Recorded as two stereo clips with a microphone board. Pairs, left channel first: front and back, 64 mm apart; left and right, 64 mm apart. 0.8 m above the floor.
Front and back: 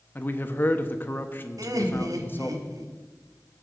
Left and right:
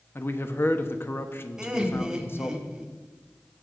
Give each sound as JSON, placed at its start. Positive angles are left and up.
{"t": 0.1, "sound": "a man speaking", "azimuth_deg": 50, "distance_m": 0.9}
{"t": 1.6, "sound": "laughter", "azimuth_deg": -170, "distance_m": 1.5}